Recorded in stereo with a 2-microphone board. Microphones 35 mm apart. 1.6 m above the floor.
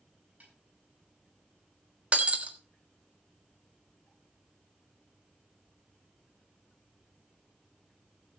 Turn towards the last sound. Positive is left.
turn(degrees=-40)  # may be behind; listen again after turning